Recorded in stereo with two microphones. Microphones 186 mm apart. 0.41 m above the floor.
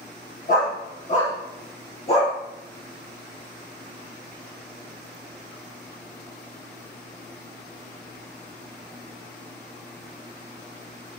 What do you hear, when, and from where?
0.5 s a dog barking: 50° left (ahead or behind), 5 m; by 2.4 s 30° left (ahead or behind), 3 m